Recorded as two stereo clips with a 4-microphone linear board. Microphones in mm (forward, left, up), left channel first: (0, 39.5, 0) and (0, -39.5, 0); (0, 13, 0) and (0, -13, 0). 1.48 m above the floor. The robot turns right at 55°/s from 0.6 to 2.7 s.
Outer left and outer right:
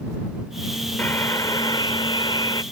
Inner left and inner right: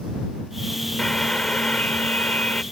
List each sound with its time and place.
1.0 s a buzzer: 25° left; by 2.6 s 120° left